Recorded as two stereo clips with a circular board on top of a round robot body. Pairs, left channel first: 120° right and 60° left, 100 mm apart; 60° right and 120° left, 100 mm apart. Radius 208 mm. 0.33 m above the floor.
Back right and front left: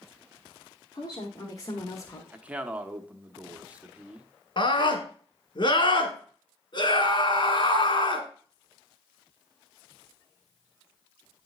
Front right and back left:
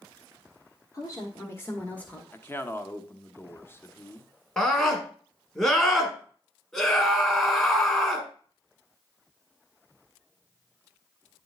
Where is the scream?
135° right, 1.6 m.